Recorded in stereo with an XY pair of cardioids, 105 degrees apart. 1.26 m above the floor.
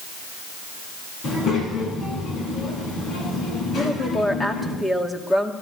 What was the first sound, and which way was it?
A child speaking, 55° left.